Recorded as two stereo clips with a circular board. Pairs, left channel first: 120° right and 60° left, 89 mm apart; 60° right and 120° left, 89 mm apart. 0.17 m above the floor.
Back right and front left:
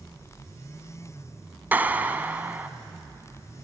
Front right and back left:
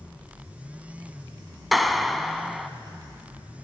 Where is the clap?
30° left, 0.9 m.